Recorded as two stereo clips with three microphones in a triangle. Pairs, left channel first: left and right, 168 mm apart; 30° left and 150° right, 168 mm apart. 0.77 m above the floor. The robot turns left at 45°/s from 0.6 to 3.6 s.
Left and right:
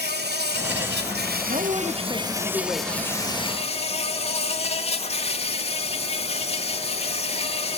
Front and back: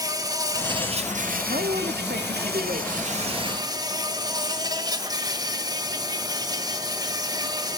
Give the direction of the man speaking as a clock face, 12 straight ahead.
4 o'clock.